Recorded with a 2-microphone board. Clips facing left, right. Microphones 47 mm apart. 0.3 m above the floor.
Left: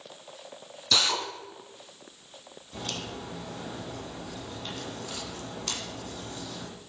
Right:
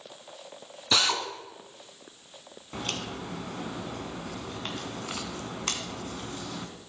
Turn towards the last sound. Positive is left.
turn(degrees=-45)  # may be behind; listen again after turning